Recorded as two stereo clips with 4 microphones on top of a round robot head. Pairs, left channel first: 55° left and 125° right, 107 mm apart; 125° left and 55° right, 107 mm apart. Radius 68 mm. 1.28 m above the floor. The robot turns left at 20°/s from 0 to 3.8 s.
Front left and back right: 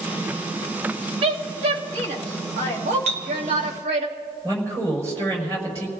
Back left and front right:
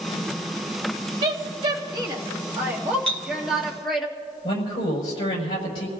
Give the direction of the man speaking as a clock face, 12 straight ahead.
6 o'clock.